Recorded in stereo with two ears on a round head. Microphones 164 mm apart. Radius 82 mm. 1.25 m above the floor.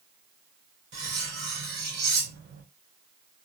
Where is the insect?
I don't hear an insect.